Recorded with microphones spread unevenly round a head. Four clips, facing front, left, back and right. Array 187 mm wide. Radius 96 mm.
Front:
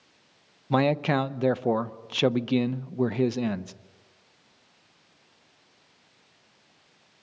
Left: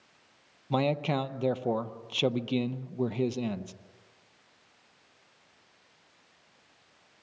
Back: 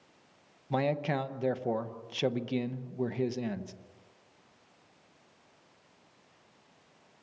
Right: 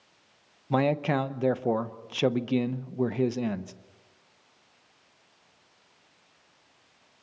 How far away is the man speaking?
About 0.7 m.